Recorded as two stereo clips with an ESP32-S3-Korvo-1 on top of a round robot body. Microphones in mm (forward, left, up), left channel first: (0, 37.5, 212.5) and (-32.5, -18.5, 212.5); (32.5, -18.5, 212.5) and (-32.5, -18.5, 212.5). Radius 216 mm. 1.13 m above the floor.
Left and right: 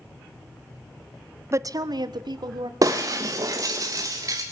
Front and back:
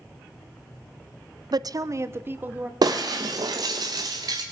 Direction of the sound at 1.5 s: 170° right.